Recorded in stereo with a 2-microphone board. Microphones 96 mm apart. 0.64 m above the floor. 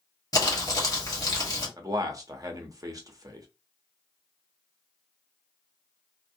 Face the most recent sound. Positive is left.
turn(degrees=-40)  # may be behind; listen again after turning